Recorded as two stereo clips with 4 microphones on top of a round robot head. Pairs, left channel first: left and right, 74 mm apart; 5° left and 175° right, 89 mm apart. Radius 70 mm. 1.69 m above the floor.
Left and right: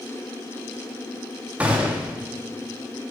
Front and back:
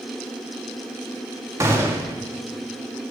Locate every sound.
1.6 s a gunshot: 155° right, 1.2 m